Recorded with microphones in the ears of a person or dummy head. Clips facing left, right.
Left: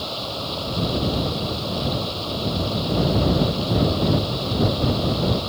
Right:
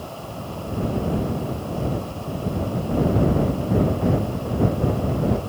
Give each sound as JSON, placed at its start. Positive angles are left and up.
{"t": 0.0, "sound": "running water", "side_deg": 50}